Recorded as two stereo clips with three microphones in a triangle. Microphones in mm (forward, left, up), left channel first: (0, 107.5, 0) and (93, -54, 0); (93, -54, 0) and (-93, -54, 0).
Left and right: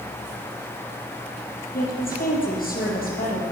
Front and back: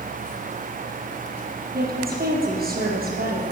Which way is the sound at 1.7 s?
150° left.